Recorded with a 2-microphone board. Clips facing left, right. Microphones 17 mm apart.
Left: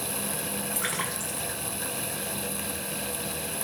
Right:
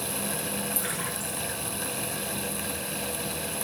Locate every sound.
0.8 s a splash: 45° left (ahead or behind), 2.5 m